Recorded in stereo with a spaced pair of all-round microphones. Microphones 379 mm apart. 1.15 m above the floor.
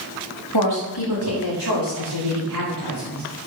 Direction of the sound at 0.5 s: 65° left (ahead or behind).